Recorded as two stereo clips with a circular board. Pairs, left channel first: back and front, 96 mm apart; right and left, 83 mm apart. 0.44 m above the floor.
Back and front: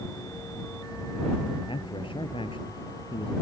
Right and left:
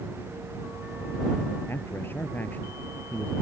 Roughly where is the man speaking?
Behind right.